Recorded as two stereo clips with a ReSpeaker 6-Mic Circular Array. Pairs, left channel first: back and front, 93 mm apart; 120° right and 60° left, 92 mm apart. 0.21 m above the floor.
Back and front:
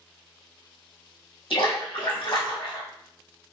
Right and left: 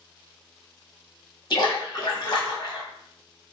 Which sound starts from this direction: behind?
A splash, at 1.5 s.